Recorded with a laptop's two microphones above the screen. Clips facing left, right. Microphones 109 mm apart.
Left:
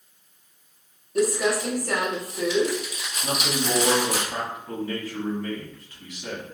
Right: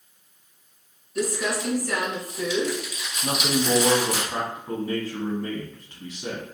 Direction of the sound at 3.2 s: 25° right (ahead or behind).